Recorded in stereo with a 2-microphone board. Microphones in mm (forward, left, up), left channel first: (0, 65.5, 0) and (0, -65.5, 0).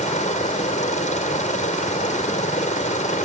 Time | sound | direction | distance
0.0 | a helicopter | 65° left (ahead or behind) | ?